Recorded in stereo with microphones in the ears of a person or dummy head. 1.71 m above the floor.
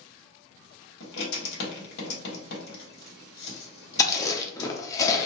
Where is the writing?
65° left (ahead or behind), 1.4 m.